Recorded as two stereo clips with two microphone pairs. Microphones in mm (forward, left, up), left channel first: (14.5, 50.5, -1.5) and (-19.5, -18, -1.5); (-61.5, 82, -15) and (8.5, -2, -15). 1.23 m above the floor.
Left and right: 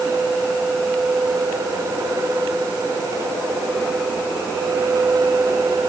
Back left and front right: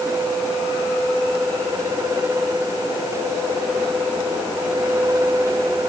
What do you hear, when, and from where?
Only background noise.